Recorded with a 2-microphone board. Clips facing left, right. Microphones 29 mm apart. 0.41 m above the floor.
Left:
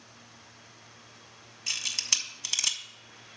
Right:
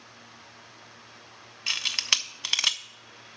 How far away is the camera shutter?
About 0.6 m.